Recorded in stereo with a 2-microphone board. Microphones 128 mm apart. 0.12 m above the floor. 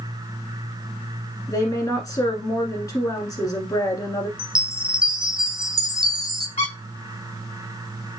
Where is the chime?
40° right (ahead or behind), 0.7 m.